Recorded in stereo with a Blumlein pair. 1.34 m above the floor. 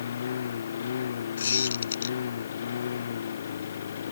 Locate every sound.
0.0 s a lawn mower: 65° left
1.4 s a squeak: 70° left